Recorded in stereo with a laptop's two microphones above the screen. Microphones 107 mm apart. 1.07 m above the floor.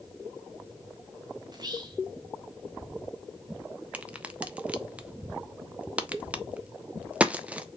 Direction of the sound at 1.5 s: 40° right (ahead or behind).